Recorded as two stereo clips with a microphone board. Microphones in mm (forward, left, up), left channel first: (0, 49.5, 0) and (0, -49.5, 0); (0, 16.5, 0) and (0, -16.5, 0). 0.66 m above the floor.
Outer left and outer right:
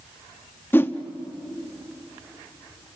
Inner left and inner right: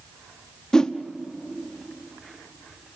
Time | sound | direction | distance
0.7 | a whoosh | 20° left (ahead or behind) | 0.8 m